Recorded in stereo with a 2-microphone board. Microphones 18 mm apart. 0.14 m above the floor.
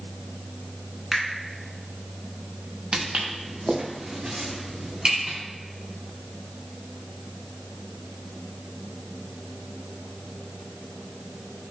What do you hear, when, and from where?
1.1 s a finger snap: 20° right (ahead or behind), 0.9 m
2.9 s footsteps: 80° right, 0.8 m